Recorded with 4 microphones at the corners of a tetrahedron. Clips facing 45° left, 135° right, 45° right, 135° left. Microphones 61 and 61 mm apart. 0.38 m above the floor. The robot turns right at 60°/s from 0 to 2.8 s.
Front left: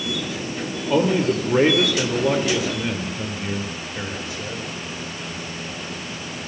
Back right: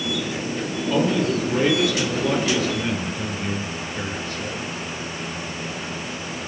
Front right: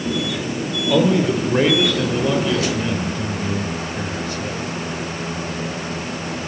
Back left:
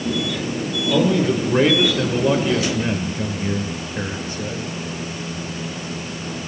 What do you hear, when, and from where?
0.9 s a man speaking: straight ahead, 1.6 m; by 4.7 s 115° left, 1.6 m